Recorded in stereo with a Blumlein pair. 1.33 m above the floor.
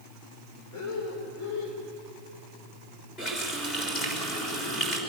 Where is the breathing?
40° left, 4 m.